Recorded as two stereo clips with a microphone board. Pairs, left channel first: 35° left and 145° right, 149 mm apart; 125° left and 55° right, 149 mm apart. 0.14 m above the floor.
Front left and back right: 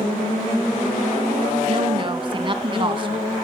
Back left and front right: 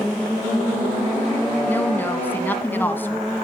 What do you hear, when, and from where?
1.7 s a woman speaking: 165° right, 1.2 m